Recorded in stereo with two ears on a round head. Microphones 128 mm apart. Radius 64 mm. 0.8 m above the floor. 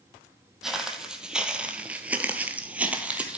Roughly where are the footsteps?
Centre.